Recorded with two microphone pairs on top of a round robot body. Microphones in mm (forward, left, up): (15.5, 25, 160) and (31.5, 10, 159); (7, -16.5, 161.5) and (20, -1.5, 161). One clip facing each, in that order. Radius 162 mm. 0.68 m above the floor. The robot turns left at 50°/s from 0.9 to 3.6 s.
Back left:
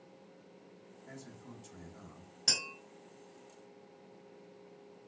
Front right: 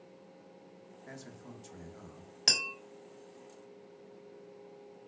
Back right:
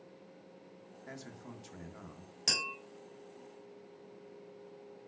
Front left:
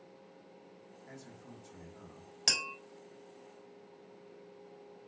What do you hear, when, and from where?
1.1 s a man speaking: 80° right, 0.8 m; by 2.4 s 145° right, 0.8 m
2.5 s tapping: 20° right, 1.6 m; by 2.7 s 30° right, 1.6 m